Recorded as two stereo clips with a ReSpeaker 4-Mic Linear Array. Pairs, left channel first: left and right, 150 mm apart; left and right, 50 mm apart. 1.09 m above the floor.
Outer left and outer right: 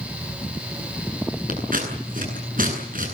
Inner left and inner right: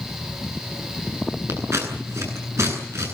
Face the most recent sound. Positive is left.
turn(degrees=-70)  # may be behind; listen again after turning